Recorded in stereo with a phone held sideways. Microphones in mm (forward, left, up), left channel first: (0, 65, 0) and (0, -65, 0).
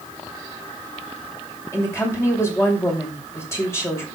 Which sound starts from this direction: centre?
A woman speaking, at 1.7 s.